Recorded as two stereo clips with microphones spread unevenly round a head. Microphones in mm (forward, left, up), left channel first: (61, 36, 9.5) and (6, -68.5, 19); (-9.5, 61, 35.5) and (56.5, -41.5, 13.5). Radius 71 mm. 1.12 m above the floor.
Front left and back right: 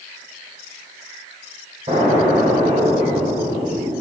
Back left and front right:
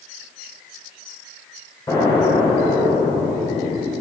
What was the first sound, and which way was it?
An explosion, 170° right.